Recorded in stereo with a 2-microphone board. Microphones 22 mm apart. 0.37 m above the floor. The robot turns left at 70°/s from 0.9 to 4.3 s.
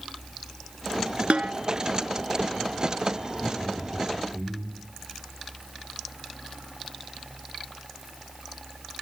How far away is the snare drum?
About 1.0 m.